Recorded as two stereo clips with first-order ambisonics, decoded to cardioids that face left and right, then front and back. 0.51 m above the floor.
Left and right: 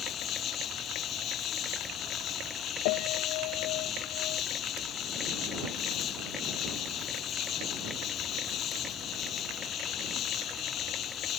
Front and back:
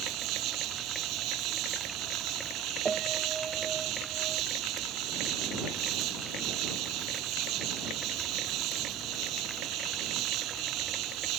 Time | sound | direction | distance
0.0 | an insect | 145° left | ?
2.9 | a piano | 105° left | ?